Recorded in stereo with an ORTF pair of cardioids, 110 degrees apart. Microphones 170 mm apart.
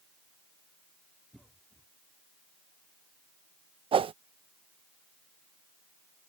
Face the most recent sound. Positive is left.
turn(degrees=-30)